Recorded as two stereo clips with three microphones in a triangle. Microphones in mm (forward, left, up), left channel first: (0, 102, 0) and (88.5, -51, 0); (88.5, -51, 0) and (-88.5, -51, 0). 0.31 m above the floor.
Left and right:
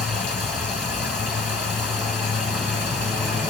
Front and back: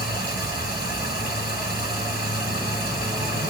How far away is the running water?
About 3.5 m.